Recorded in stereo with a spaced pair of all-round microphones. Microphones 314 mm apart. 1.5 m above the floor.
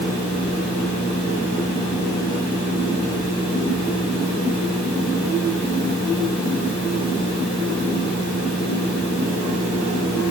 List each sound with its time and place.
Only background noise.